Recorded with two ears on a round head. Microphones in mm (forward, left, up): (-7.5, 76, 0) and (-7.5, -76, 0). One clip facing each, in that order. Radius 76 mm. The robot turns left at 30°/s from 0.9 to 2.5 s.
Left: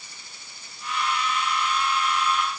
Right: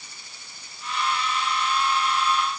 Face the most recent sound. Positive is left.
No sound to turn to.